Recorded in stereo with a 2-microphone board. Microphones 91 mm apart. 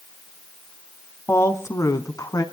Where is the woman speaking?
25° left (ahead or behind), 1.6 m; by 2.4 s 45° left (ahead or behind), 1.9 m.